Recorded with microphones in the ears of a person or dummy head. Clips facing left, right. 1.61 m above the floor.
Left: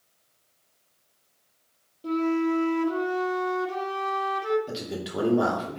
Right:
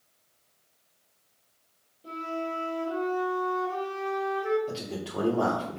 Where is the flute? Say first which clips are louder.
Left 10 dB; 65° left (ahead or behind), 1.7 m.